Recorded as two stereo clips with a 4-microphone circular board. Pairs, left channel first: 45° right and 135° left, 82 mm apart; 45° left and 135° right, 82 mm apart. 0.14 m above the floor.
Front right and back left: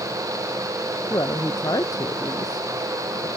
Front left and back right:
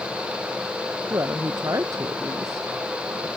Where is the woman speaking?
85° right.